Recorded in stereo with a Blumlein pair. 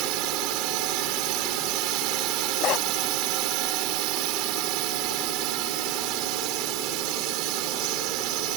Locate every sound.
0.0 s a drone: 40° right
2.6 s a dog barking: 35° left